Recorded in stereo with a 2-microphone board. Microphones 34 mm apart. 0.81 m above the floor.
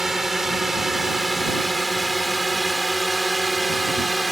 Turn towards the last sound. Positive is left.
turn(degrees=5)  # may be behind; listen again after turning